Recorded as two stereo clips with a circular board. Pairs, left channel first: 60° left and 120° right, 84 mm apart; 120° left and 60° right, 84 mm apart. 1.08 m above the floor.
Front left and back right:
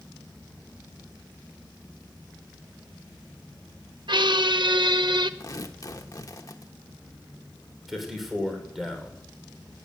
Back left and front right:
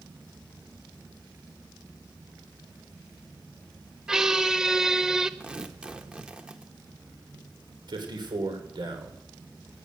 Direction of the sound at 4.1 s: 145° right.